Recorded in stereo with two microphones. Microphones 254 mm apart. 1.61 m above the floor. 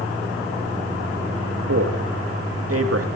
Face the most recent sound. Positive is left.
turn(degrees=-65)  # may be behind; listen again after turning